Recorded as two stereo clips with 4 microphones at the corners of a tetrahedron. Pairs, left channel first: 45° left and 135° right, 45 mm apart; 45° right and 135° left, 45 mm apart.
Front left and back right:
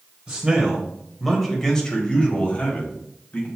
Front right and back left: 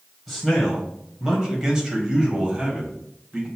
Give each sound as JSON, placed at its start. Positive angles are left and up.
{"t": 0.3, "sound": "a man speaking", "azimuth_deg": -140, "distance_m": 1.2}